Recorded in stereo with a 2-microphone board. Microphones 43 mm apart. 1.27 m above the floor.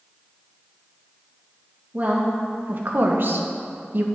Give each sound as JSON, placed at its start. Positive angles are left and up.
{"t": 1.9, "sound": "a woman speaking", "side_deg": -40, "distance_m": 1.8}